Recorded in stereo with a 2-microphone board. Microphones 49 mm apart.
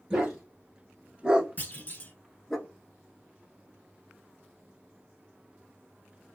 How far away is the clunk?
About 0.8 m.